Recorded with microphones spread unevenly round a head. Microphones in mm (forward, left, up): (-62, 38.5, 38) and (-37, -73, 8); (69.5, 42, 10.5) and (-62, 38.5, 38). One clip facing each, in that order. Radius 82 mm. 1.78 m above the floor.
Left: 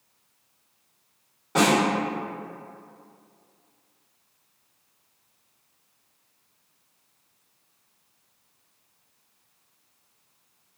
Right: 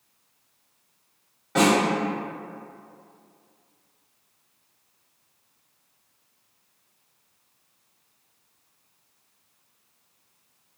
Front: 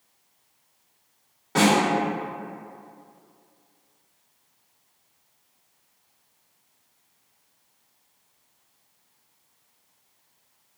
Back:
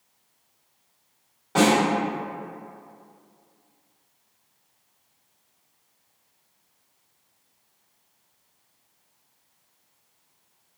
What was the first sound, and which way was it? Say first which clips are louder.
A snare drum: right 1 dB, back 1 dB; 105° left.